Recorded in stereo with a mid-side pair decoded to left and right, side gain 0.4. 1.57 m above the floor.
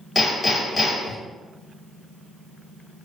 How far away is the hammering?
About 1.4 m.